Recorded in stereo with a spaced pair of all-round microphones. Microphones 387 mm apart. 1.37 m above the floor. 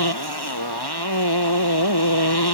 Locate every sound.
0.0 s a motorcycle: 80° left